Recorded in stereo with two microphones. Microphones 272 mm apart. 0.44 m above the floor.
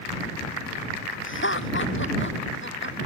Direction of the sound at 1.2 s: 45° left (ahead or behind).